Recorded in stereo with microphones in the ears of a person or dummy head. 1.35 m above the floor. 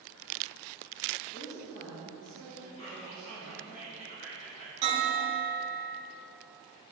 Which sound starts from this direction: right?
A bell, at 4.8 s.